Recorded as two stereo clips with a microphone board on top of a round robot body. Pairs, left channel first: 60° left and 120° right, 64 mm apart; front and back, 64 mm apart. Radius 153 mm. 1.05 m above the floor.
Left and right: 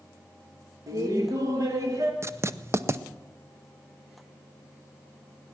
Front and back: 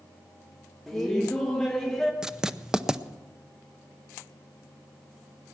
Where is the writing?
105° right, 0.8 m.